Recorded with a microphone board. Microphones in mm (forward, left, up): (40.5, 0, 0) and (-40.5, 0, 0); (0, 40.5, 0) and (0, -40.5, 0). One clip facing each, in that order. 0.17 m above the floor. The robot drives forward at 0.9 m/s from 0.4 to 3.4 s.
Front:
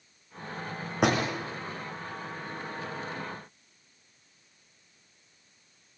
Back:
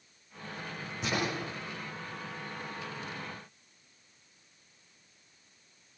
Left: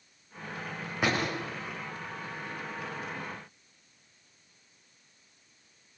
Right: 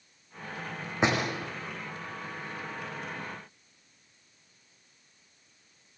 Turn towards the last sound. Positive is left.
turn(degrees=-30)